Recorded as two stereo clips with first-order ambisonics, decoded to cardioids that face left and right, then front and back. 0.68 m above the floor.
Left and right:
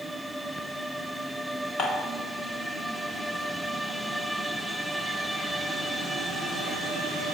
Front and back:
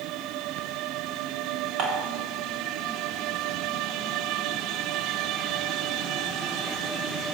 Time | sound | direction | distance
1.8 | dishes clattering | 145° left | 0.8 m